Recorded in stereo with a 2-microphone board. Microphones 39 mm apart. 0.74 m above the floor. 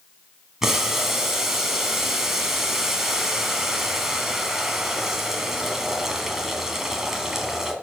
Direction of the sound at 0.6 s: 10° right (ahead or behind).